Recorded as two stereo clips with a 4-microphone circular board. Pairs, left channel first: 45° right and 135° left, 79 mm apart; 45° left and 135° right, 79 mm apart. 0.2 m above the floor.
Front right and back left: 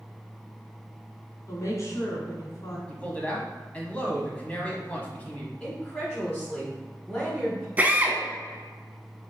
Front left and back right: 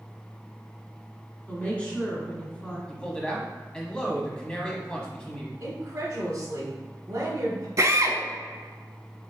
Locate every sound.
1.5 s a woman speaking: 25° right, 1.3 m
2.9 s a man speaking: 10° right, 1.1 m
5.6 s a woman speaking: 125° right, 1.2 m
7.8 s a drill: 160° right, 0.6 m